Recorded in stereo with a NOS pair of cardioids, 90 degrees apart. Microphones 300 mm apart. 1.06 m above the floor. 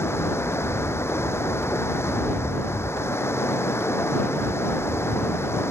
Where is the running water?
10° left.